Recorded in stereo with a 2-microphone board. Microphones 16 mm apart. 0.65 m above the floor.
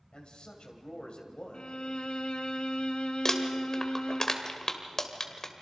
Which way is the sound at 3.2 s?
30° left (ahead or behind).